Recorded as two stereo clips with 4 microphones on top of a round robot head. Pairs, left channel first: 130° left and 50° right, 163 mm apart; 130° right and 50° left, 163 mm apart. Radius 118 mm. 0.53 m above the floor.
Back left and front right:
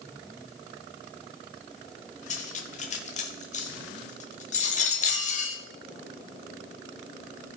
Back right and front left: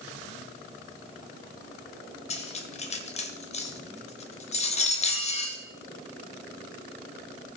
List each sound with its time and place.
2.3 s cutlery clinking: straight behind, 1.4 m